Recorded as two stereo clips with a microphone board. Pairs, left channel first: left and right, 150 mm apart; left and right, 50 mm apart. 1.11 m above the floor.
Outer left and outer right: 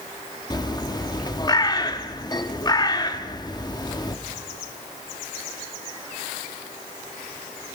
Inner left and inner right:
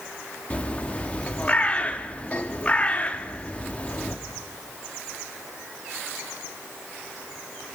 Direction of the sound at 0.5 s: 25° left (ahead or behind).